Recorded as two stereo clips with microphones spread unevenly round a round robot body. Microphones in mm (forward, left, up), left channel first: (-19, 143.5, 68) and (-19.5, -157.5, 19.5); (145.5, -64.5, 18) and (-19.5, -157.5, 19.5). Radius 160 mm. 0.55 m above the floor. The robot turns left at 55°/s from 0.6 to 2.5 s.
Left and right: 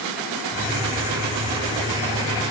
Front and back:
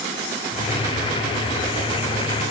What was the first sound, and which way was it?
Only background noise.